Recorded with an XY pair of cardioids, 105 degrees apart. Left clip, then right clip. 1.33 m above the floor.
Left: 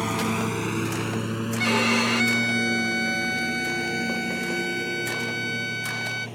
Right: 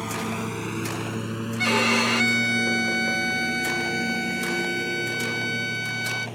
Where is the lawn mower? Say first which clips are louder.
Left 3 dB; 30° left; by 6.4 s 5° right.